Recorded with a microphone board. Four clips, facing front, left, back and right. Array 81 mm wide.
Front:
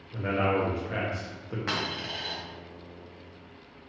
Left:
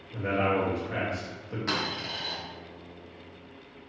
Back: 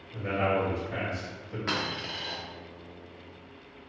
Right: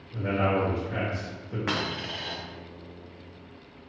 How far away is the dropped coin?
About 0.7 m.